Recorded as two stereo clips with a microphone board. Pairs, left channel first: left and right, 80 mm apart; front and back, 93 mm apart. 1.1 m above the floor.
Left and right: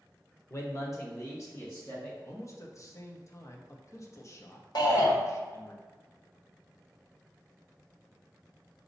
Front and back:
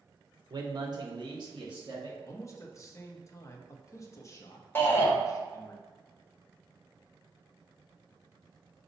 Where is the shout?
65° left, 1.1 m.